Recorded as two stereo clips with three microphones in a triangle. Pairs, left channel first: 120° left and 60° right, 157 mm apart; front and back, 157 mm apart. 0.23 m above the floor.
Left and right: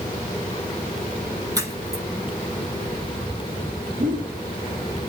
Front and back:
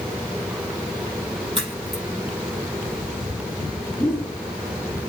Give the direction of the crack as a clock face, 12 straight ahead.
4 o'clock.